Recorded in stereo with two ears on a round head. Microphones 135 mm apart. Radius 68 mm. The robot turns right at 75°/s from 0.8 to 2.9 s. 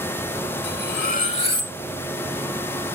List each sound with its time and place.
0.6 s cutlery clinking: 90° left, 1.5 m; by 1.8 s 165° left, 1.5 m